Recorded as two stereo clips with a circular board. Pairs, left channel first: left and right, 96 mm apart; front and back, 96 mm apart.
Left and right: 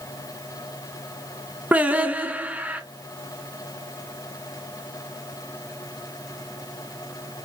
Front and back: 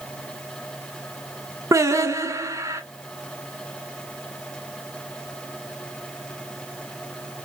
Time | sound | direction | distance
1.7 | singing | 155° right | 0.5 m